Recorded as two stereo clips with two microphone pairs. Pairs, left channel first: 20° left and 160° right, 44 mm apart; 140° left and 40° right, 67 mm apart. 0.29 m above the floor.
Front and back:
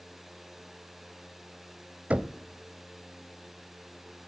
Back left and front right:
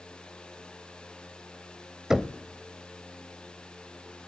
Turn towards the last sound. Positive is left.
turn(degrees=-115)